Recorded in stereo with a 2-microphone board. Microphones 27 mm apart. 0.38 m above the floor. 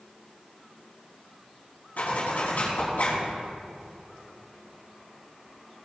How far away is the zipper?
About 4 m.